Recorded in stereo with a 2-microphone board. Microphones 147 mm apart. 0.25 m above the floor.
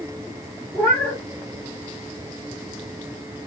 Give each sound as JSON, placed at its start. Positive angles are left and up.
{"t": 0.7, "sound": "a cat meowing", "side_deg": 15, "distance_m": 1.8}